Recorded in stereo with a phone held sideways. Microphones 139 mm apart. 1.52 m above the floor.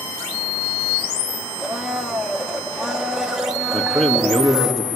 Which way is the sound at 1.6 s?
5° right (ahead or behind).